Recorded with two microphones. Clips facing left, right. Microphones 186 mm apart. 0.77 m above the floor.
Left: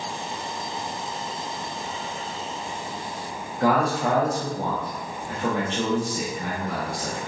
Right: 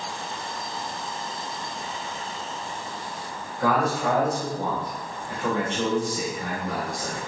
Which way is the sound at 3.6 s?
30° left (ahead or behind).